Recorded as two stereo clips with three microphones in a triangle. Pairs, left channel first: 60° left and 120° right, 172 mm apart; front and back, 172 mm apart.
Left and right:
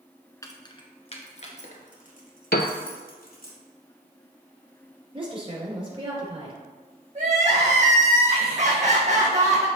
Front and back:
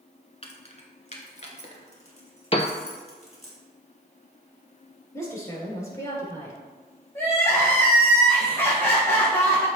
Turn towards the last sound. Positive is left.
turn(degrees=-75)